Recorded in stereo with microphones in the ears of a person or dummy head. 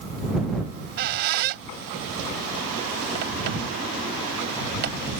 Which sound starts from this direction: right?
A squeak, at 0.7 s.